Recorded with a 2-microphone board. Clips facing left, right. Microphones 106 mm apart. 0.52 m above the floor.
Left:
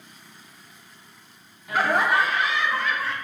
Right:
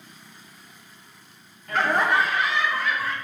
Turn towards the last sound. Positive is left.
turn(degrees=-5)  # may be behind; listen again after turning